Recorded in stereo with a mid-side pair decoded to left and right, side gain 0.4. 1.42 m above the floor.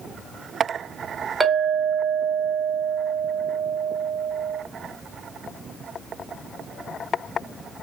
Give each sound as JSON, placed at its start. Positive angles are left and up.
{"t": 1.4, "sound": "a clink", "azimuth_deg": -25, "distance_m": 1.6}